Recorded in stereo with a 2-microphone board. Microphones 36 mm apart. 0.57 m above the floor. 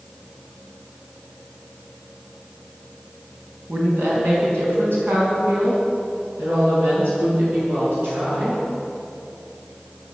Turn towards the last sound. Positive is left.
turn(degrees=-80)